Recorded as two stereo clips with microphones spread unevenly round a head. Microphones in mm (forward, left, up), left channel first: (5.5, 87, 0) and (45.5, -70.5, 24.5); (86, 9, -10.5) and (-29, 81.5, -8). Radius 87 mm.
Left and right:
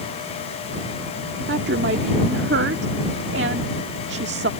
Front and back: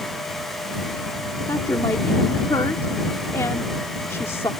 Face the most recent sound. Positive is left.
turn(degrees=-110)